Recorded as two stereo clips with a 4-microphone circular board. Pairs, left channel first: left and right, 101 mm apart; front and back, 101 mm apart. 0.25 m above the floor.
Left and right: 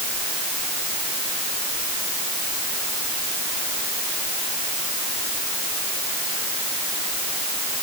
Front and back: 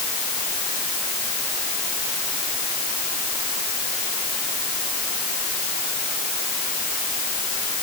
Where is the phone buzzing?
I don't hear a phone buzzing.